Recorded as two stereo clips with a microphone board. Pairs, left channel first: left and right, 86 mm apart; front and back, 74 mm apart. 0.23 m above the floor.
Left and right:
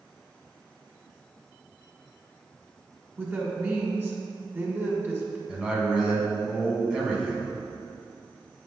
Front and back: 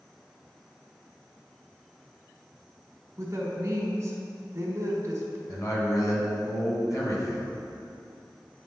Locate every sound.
3.2 s a woman speaking: 145° right, 1.4 m
5.5 s a man speaking: 15° right, 2 m